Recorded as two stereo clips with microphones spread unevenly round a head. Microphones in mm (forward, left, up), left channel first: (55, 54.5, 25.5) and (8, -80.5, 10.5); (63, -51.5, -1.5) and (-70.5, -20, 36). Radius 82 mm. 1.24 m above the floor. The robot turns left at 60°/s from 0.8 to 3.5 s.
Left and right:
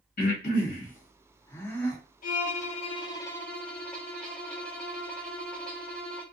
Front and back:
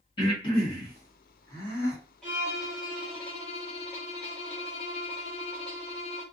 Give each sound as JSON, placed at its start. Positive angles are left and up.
{"t": 0.2, "sound": "breathing", "azimuth_deg": 50, "distance_m": 1.4}
{"t": 2.2, "sound": "a violin", "azimuth_deg": 60, "distance_m": 0.8}